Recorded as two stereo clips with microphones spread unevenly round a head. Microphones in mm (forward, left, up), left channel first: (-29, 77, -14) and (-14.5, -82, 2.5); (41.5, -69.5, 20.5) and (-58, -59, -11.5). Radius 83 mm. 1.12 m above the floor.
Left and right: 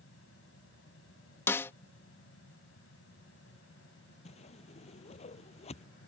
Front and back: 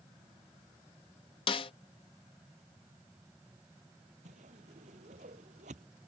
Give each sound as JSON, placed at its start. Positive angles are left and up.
{"t": 0.0, "sound": "a fan", "azimuth_deg": 95}
{"t": 1.5, "sound": "a snare drum", "azimuth_deg": 15}
{"t": 4.2, "sound": "a whoosh", "azimuth_deg": 145}